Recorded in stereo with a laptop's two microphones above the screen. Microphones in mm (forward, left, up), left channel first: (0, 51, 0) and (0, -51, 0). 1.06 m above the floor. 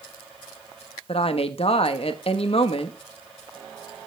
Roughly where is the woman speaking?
Left.